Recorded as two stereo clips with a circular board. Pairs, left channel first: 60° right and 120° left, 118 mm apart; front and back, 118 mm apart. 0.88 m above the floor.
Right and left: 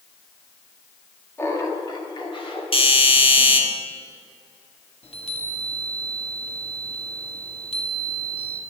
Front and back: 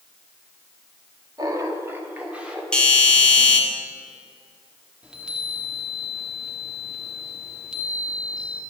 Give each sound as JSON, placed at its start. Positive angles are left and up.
{"t": 1.4, "sound": "laughter", "azimuth_deg": -125, "distance_m": 1.7}
{"t": 2.7, "sound": "a doorbell", "azimuth_deg": -80, "distance_m": 1.7}
{"t": 5.0, "sound": "a chime", "azimuth_deg": -95, "distance_m": 1.5}